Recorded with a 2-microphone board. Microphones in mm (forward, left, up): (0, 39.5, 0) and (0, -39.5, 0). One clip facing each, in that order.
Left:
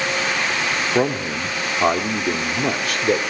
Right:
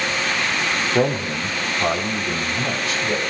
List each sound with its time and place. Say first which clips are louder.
0.9 s a man speaking: right 1 dB; 20° left (ahead or behind), 2.5 m; by 3.2 s 65° left (ahead or behind), 2.5 m